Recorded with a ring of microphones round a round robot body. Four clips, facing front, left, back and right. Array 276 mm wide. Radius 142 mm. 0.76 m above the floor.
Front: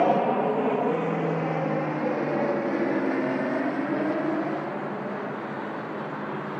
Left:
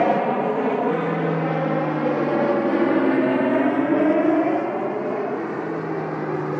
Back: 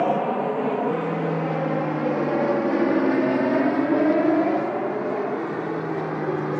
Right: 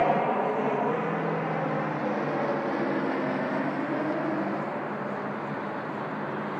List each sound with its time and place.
0.0 s an aircraft: 80° left; by 6.6 s 130° left